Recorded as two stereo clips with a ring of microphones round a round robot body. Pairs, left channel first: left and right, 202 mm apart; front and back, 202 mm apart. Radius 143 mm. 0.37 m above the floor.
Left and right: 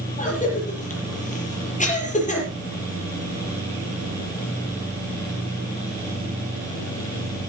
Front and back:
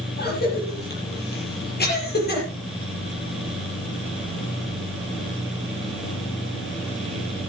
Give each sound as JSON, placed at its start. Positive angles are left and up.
{"t": 0.2, "sound": "a cough", "azimuth_deg": 35, "distance_m": 9.0}